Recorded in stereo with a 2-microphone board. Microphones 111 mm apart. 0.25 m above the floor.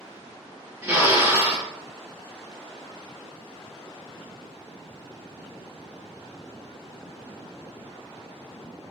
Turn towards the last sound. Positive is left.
turn(degrees=-20)  # may be behind; listen again after turning